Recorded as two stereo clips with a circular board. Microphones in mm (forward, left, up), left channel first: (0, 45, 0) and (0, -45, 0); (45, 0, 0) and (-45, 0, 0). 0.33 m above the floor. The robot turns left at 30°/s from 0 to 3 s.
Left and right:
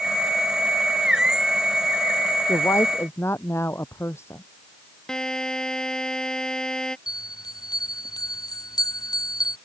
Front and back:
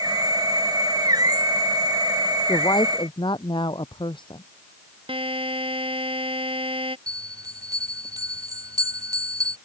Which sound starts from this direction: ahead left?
A woman speaking, at 2.5 s.